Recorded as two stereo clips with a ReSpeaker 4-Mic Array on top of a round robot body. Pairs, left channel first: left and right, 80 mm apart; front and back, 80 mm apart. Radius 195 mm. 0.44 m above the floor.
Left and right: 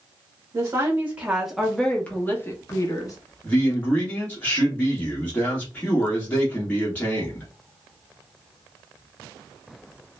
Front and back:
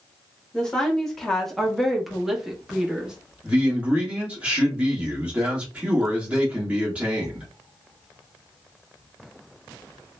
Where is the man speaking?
130° left, 1.3 m.